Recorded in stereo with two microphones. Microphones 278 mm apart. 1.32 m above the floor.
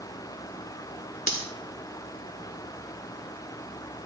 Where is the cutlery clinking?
65° left (ahead or behind), 1.6 m.